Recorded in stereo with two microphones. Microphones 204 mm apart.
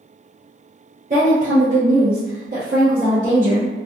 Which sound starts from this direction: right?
A woman speaking, at 1.1 s.